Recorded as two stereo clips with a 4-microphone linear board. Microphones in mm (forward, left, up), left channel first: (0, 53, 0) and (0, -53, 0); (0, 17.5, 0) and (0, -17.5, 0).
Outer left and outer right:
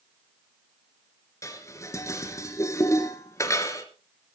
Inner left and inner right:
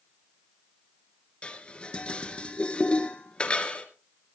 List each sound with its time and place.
1.4 s dishes clattering: 30° left (ahead or behind), 2 m